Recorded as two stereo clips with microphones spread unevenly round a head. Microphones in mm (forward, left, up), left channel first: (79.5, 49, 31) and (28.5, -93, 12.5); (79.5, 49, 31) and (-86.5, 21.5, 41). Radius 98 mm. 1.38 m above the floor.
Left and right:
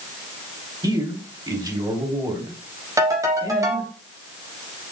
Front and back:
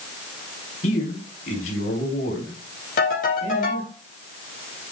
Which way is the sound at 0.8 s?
45° right.